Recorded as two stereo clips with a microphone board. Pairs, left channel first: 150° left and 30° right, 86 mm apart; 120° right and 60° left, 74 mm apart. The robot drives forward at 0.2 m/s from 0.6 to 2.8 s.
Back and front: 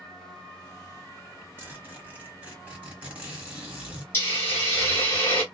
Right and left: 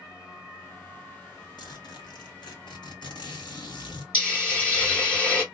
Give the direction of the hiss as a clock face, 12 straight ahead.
6 o'clock.